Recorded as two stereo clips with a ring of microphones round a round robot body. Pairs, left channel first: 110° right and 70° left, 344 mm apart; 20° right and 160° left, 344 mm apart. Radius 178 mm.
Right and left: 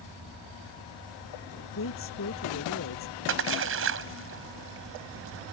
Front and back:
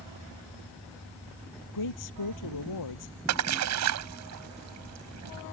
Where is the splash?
120° left.